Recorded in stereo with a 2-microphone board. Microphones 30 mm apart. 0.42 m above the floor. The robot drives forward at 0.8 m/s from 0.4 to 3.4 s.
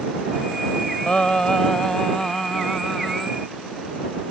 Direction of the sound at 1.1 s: 40° left (ahead or behind).